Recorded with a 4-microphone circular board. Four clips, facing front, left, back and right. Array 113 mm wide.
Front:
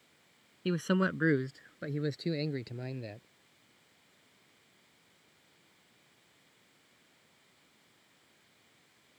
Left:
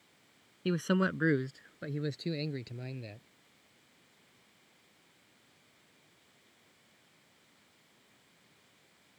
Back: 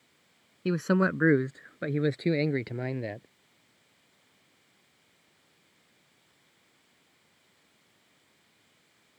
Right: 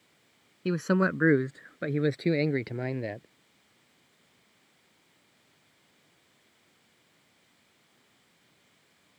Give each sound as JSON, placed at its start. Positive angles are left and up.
{"t": 0.7, "sound": "a man speaking", "azimuth_deg": -145}